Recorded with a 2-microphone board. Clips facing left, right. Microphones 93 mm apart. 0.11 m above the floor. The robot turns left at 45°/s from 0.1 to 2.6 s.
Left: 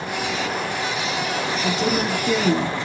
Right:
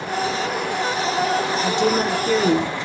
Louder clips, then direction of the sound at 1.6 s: Right 2 dB; 45° right.